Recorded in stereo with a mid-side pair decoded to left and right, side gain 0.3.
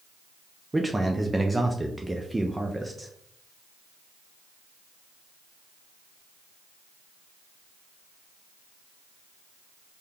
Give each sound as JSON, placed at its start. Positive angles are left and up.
{"t": 0.7, "sound": "a man speaking", "azimuth_deg": -20, "distance_m": 0.5}